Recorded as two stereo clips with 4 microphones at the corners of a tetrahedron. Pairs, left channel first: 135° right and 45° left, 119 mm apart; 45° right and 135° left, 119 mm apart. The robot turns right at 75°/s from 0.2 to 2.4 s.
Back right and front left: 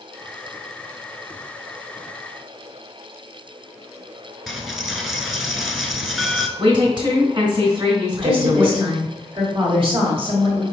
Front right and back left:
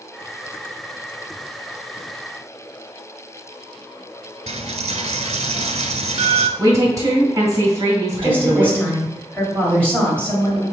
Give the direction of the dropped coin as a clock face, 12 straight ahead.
8 o'clock.